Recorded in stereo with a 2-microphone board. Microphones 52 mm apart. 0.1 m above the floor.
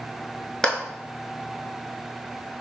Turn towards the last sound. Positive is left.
turn(degrees=15)  # may be behind; listen again after turning